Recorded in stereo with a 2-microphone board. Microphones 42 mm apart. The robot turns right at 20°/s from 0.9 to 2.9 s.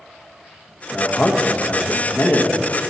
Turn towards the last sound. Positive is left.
turn(degrees=70)